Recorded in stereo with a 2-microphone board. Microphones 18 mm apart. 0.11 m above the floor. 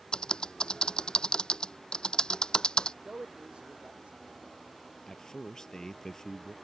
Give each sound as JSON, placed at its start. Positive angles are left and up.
{"t": 0.1, "sound": "typing on a keyboard", "side_deg": 55}
{"t": 3.0, "sound": "a man speaking", "side_deg": -75}
{"t": 5.1, "sound": "a man speaking", "side_deg": 35}